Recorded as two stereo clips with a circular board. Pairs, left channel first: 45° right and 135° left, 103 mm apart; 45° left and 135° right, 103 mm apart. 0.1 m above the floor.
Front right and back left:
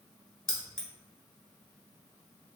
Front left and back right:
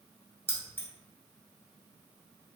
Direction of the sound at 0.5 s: 30° left.